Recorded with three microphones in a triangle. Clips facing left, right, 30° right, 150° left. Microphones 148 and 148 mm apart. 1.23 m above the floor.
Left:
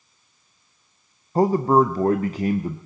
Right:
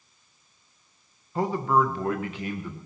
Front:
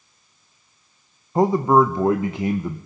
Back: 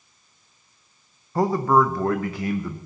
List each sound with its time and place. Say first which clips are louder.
1.4 s a man speaking: left 7 dB, front 3 dB; 35° left, 0.6 m